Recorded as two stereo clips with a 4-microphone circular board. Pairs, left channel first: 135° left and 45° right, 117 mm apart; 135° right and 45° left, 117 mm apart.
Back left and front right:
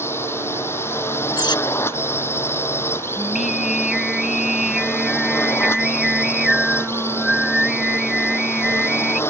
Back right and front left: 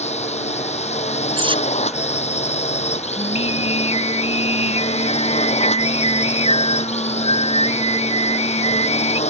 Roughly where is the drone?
Behind right.